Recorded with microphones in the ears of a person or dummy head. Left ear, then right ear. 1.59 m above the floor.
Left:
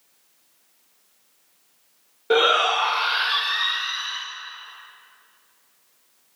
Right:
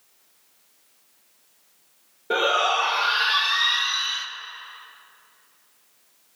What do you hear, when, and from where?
2.3 s a shout: 35° left (ahead or behind), 1.3 m; by 4.3 s 5° left (ahead or behind), 1.8 m